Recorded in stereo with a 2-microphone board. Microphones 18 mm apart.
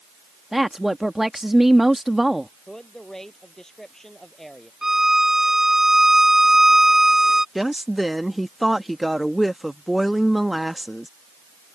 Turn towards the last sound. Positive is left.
turn(degrees=-10)  # may be behind; listen again after turning